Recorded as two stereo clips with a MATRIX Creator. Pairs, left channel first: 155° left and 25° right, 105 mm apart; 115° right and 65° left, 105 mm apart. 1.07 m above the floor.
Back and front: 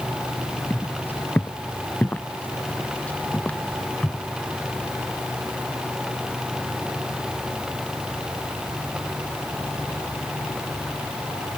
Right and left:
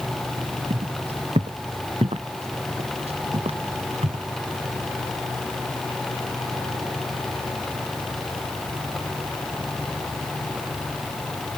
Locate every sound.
0.7 s footsteps: 85° left; by 4.2 s 80° left